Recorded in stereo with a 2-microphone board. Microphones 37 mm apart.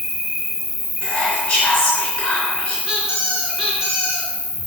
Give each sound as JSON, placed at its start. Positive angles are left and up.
{"t": 0.0, "sound": "an insect", "side_deg": -10, "distance_m": 3.0}
{"t": 1.0, "sound": "whispering", "side_deg": 20, "distance_m": 3.0}
{"t": 2.9, "sound": "a squeak", "side_deg": -15, "distance_m": 3.5}